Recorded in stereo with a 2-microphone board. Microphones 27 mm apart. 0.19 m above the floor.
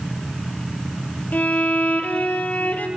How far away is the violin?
About 2 m.